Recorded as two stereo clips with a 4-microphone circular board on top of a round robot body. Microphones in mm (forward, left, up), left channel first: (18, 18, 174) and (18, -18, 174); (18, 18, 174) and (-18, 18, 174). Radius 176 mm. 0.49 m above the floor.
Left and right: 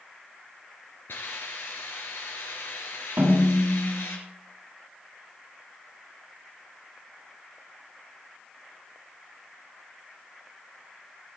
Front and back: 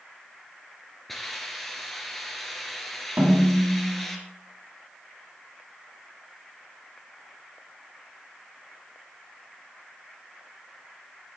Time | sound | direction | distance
1.1 | a hiss | 85° left | 3 m
3.2 | a snare drum | 135° right | 6.5 m